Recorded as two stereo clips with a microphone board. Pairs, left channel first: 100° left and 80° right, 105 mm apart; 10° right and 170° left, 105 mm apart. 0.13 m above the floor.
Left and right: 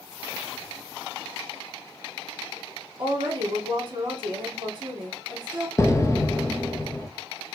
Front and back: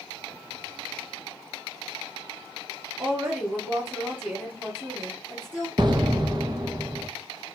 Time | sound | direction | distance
3.0 | a woman speaking | 120° right | 3 m
5.8 | an explosion | 145° left | 0.7 m